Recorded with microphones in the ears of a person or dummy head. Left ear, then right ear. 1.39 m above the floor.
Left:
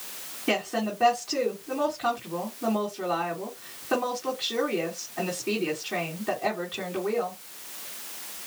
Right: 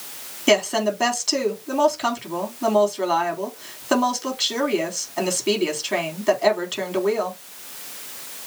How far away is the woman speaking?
About 3.5 m.